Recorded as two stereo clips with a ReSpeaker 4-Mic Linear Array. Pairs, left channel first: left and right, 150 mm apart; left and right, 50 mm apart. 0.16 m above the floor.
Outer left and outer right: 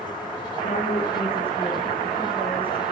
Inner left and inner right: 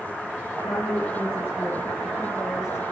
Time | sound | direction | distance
0.6 | a woman speaking | 55° left (ahead or behind) | 3 m